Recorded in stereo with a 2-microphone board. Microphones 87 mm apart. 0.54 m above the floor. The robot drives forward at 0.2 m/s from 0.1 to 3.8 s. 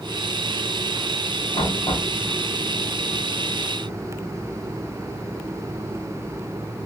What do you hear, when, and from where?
1.5 s knocking: 75° left (ahead or behind), 3.5 m